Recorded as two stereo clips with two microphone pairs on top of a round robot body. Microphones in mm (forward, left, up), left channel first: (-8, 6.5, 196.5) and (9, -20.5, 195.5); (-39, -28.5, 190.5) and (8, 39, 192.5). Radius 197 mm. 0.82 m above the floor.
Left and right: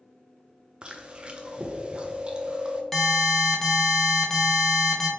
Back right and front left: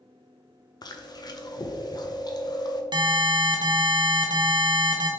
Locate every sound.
0.8 s chewing: 110° right, 0.8 m
2.9 s an alarm: 35° left, 1.0 m